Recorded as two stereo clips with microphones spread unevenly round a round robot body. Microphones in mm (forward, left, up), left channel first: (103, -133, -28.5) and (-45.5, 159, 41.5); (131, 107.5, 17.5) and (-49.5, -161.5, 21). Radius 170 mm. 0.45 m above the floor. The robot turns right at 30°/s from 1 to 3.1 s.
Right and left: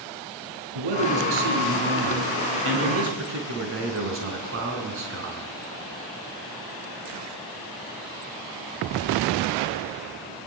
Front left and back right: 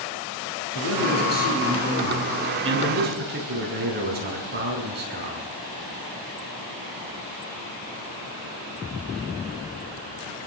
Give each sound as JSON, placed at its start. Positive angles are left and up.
{"t": 0.8, "sound": "a man speaking", "azimuth_deg": 110, "distance_m": 6.5}